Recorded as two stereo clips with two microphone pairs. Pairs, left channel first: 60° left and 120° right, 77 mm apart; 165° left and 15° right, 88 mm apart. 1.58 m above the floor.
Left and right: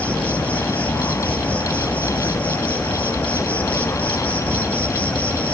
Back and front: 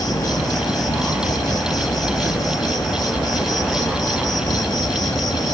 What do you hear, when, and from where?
0.0 s an insect: 125° left, 1.6 m